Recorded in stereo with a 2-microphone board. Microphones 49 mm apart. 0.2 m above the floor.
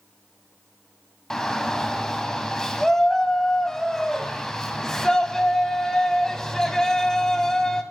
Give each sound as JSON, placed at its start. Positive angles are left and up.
{"t": 1.3, "sound": "a shout", "side_deg": 15, "distance_m": 1.0}